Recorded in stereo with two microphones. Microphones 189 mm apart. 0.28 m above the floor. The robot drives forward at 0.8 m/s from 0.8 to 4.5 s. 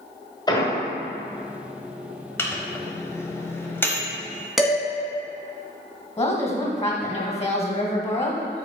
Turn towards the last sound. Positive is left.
turn(degrees=35)  # may be behind; listen again after turning